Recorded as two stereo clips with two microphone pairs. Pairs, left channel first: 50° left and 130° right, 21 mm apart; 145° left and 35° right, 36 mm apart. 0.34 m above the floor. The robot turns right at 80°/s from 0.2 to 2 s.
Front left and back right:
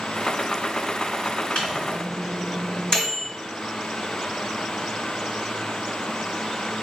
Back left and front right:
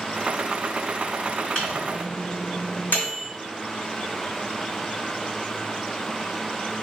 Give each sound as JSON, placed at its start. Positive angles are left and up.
{"t": 1.6, "sound": "a microwave", "azimuth_deg": 85, "distance_m": 2.0}